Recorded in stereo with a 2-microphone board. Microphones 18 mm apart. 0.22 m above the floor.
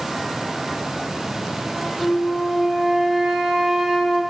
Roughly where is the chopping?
I don't hear chopping.